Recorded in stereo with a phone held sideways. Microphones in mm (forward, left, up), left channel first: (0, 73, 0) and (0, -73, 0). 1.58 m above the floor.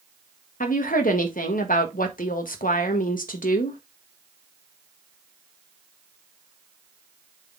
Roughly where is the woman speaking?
Left.